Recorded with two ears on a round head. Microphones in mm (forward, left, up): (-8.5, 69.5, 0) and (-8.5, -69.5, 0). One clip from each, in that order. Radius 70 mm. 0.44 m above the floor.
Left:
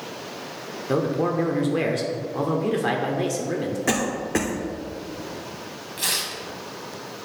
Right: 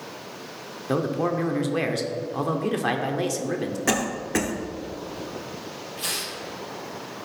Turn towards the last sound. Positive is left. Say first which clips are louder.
# left 4 dB
turn(degrees=30)  # may be behind; listen again after turning